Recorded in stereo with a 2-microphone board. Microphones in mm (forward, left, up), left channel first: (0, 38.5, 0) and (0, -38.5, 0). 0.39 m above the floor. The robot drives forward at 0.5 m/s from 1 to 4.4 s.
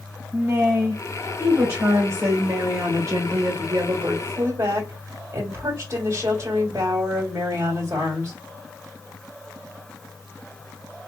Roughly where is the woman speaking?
Right.